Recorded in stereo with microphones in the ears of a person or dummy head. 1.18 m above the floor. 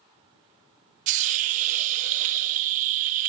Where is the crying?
No crying in this recording.